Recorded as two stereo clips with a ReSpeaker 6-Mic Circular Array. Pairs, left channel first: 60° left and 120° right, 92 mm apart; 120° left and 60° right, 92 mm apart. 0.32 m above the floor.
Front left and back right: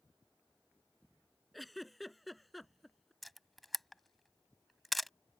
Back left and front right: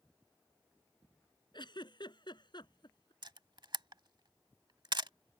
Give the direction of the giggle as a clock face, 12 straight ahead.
7 o'clock.